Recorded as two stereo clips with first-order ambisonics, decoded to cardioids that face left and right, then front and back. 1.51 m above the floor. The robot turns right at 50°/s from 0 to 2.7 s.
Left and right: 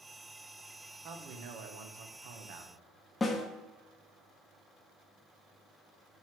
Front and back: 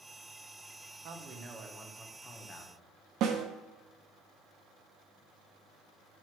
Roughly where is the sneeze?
I don't hear a sneeze.